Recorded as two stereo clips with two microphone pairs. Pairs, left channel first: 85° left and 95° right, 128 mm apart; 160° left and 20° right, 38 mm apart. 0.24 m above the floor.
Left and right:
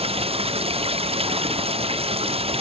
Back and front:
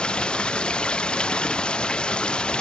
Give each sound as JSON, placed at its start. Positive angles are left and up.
{"t": 0.0, "sound": "running water", "azimuth_deg": -135}